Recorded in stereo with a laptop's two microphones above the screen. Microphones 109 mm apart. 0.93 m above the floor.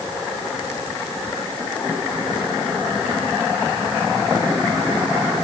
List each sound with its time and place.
Only background noise.